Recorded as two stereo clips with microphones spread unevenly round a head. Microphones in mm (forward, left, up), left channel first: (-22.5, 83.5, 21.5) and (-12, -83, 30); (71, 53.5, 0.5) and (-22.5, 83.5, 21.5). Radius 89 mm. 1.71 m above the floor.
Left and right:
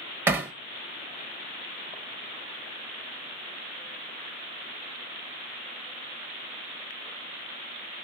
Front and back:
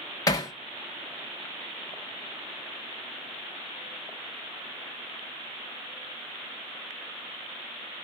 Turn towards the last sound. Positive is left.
turn(degrees=-40)